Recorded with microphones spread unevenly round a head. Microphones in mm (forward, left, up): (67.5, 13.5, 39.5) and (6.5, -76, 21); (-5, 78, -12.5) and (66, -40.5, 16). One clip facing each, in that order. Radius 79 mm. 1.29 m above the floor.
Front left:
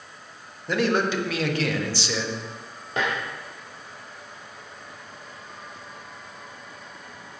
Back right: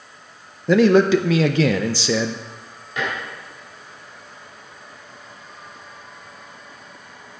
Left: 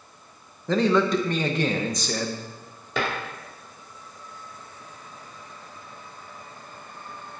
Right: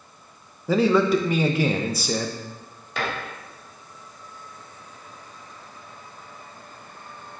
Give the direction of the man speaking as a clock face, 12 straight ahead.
5 o'clock.